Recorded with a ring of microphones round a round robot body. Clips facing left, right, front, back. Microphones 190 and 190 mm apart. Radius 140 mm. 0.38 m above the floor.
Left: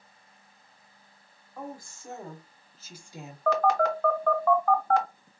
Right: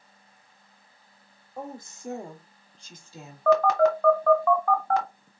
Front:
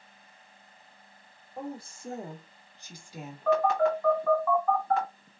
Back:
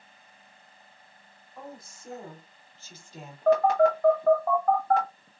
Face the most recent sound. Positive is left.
turn(degrees=-110)